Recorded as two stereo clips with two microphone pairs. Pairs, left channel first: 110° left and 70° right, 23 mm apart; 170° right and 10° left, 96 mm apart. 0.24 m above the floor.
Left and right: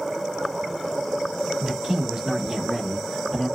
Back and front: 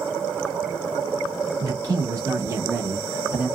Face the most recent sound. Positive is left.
turn(degrees=70)